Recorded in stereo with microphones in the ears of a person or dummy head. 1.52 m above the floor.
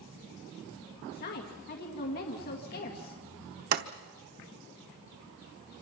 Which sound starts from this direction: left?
A woman speaking, at 1.1 s.